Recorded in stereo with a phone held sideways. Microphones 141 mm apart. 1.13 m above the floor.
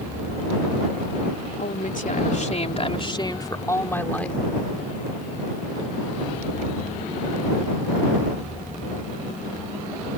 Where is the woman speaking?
75° left (ahead or behind); by 4.4 s 10° left (ahead or behind).